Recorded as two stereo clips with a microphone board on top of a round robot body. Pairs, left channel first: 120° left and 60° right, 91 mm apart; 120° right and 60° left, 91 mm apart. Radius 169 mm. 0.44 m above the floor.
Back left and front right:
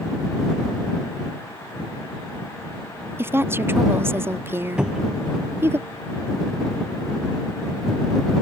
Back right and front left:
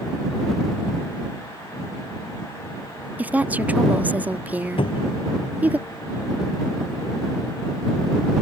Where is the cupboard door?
140° right.